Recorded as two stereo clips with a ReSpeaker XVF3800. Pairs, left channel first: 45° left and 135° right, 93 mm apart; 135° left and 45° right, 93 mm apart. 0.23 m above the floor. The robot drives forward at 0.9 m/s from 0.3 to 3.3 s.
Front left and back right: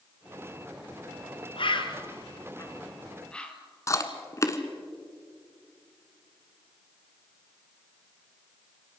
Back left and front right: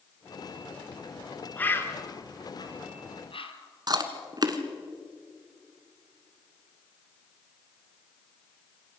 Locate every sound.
1.6 s a bird: 65° left, 1.5 m; by 3.5 s 125° left, 1.6 m
3.9 s chewing: 10° right, 1.4 m